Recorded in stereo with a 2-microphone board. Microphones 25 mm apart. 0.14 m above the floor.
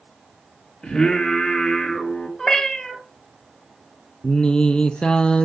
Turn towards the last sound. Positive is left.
turn(degrees=40)  # may be behind; listen again after turning